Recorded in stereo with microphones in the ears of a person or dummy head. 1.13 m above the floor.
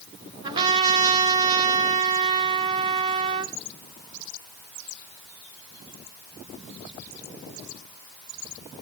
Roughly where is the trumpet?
Right.